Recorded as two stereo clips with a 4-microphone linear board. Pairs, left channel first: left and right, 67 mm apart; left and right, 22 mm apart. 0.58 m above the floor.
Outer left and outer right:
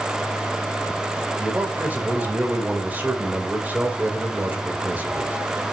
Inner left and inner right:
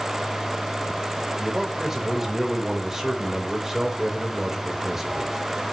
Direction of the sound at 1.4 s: 25° right (ahead or behind).